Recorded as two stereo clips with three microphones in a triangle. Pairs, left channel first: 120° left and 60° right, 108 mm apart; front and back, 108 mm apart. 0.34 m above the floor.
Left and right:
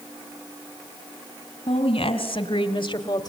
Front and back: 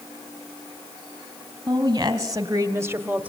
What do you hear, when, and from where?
1.7 s a woman speaking: 130° left, 2.5 m; by 3.3 s 110° left, 1.1 m